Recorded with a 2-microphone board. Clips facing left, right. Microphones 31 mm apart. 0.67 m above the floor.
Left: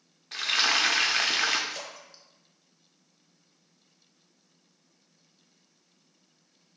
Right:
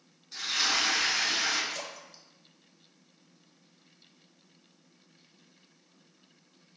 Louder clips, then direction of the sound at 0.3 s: Left 4 dB; 80° left.